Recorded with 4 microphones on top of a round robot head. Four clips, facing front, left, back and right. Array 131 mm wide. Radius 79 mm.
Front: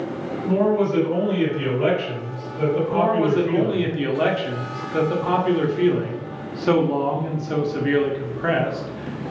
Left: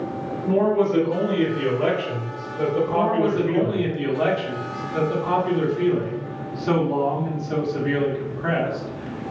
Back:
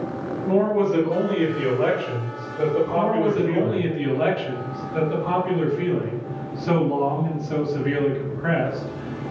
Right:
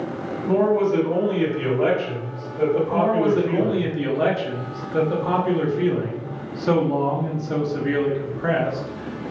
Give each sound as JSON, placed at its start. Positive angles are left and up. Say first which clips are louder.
{"t": 0.5, "sound": "a man speaking", "louder": "right 1 dB, even", "azimuth_deg": -140, "distance_m": 1.5}
{"t": 2.9, "sound": "a man speaking", "louder": "right 1 dB, front 2 dB", "azimuth_deg": -20, "distance_m": 0.8}